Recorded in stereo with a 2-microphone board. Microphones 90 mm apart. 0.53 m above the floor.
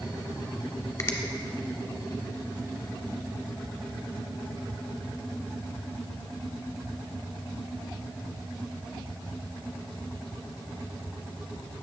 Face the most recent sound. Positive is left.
turn(degrees=40)  # may be behind; listen again after turning